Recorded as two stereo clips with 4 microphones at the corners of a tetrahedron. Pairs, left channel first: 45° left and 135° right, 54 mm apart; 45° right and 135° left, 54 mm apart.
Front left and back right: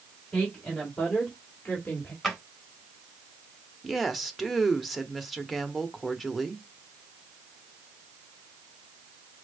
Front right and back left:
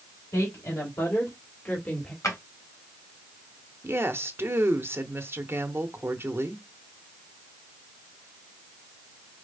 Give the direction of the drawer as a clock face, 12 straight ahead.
1 o'clock.